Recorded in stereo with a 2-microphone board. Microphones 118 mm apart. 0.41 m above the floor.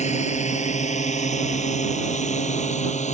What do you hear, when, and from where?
0.0 s a drone: 80° left; by 3.1 s 85° left